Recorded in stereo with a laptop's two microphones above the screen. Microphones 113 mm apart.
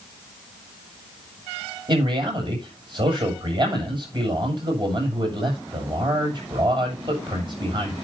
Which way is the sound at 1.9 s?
45° right (ahead or behind).